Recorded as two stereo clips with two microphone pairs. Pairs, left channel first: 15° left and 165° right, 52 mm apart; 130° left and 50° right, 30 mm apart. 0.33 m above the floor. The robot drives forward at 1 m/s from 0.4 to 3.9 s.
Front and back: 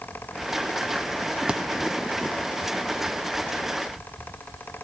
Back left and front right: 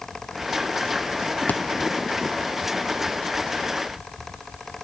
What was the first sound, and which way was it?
A thud, 120° left.